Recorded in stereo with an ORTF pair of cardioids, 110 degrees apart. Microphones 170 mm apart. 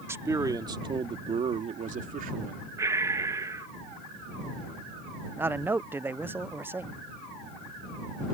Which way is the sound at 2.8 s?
20° right.